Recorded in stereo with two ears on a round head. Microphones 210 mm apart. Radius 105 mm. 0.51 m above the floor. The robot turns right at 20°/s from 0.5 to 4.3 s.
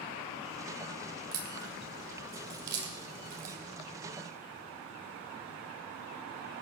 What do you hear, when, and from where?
1.3 s a crack: 65° right (ahead or behind), 2.5 m; by 3.6 s 35° right (ahead or behind), 2.5 m